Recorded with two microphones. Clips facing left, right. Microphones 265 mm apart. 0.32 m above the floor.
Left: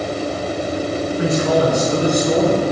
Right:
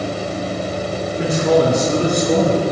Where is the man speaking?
50° right (ahead or behind), 3 m; by 2.6 s 70° right (ahead or behind), 3 m.